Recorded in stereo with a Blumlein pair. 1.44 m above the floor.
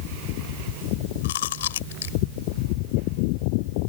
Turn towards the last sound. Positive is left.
turn(degrees=60)